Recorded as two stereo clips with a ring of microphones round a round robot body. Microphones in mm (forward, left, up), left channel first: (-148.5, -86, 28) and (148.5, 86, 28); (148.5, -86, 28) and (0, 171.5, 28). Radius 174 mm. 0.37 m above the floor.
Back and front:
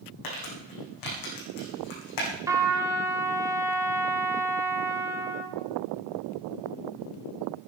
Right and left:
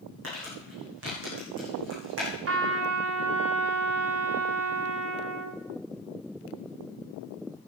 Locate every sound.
0.2 s crumpling: straight behind, 7 m
2.5 s a trumpet: 110° left, 2.0 m